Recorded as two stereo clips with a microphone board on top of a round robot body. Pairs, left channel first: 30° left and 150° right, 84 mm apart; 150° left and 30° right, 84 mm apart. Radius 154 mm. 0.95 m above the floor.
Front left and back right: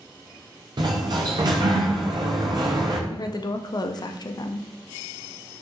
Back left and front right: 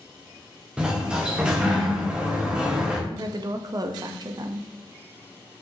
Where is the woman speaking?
Straight ahead, 0.5 m.